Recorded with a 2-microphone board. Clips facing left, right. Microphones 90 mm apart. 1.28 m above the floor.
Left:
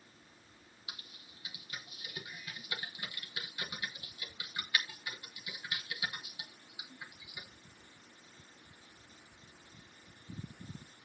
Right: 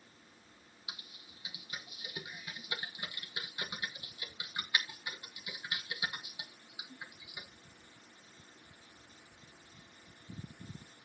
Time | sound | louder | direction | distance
0.9 | typing on a keyboard | right 1 dB | 20° right (ahead or behind) | 1.9 m